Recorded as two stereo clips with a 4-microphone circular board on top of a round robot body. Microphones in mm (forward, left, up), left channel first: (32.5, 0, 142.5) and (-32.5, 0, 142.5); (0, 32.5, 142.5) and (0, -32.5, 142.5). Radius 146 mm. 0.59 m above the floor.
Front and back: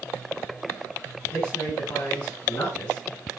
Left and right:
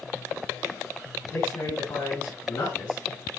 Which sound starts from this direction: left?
A man speaking, at 1.2 s.